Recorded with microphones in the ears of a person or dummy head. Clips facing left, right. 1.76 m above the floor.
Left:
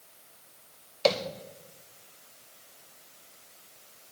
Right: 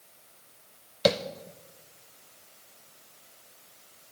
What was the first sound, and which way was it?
Tapping, 15° right (ahead or behind).